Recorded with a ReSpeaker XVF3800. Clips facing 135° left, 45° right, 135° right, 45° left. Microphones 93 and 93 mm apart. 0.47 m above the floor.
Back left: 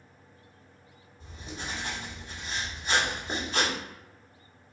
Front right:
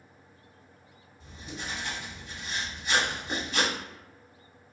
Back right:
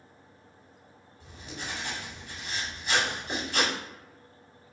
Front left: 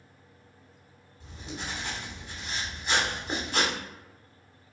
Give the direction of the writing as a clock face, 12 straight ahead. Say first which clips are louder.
Even, front left 2 dB; 9 o'clock.